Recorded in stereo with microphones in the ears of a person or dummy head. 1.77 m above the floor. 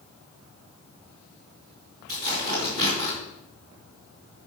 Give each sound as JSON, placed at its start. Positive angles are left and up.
{"t": 2.1, "sound": "tearing paper", "side_deg": -40, "distance_m": 3.0}